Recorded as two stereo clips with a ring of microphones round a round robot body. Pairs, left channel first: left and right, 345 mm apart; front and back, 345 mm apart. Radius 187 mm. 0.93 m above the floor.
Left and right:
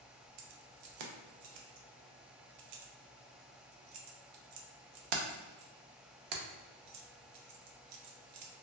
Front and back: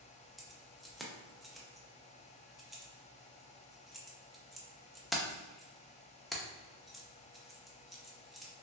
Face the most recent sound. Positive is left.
turn(degrees=-90)